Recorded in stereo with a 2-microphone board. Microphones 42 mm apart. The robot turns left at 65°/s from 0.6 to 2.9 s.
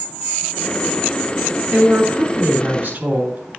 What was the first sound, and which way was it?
A woman speaking, 55° right.